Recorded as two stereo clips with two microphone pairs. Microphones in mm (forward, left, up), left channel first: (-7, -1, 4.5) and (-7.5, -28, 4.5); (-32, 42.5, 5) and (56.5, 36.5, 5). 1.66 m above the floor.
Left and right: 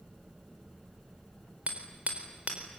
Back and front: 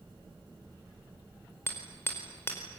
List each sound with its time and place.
1.7 s hammering: 120° right, 4.5 m